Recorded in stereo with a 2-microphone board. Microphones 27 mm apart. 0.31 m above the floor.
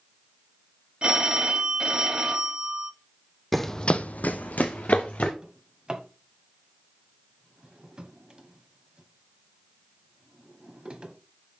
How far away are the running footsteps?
About 0.7 m.